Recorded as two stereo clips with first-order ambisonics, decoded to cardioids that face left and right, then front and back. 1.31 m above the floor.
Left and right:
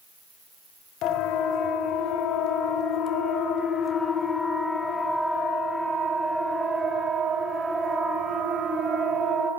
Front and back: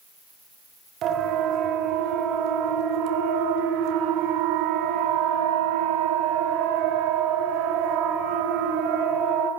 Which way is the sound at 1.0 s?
125° left.